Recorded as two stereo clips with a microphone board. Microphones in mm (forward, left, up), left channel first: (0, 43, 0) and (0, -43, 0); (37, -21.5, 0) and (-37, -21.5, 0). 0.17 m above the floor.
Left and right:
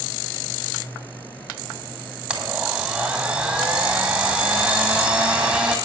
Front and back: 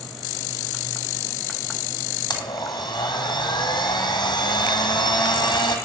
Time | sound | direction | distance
2.3 | a blender | 5° right | 2.5 m